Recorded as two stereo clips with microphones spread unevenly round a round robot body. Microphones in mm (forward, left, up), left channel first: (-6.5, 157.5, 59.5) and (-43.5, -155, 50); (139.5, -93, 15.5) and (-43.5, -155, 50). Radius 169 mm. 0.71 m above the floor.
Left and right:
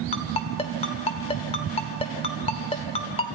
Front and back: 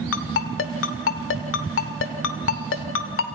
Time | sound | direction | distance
0.1 | a ringtone | 10° left | 1.1 m